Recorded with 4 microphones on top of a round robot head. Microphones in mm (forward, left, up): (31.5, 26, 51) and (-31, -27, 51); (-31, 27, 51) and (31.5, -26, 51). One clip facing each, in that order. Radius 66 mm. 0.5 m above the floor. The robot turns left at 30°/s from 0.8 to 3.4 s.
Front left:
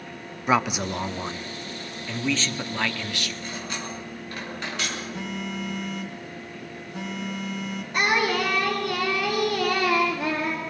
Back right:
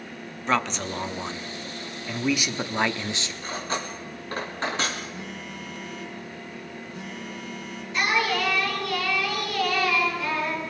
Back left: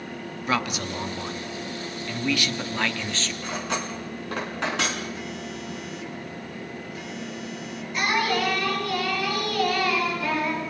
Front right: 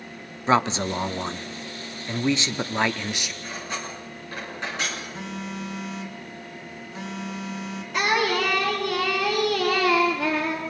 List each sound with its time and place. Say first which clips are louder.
0.5 s a man speaking: front left 3 dB, front right 6 dB; 25° right, 1.0 m; by 3.3 s 105° right, 1.0 m
3.4 s cutlery clinking: back right 3 dB, back left 5 dB; 165° left, 4 m
5.1 s a phone buzzing: front left 5 dB, front right 1 dB; 20° left, 3 m
7.9 s singing: front left 1 dB, front right 1 dB; 5° right, 6 m